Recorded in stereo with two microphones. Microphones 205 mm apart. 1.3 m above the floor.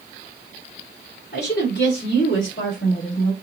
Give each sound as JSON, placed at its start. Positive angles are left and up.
{"t": 1.3, "sound": "a woman speaking", "side_deg": 55, "distance_m": 3.5}